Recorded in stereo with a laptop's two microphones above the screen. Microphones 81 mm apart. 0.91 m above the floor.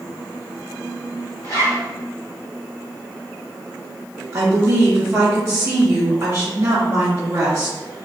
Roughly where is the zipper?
Left.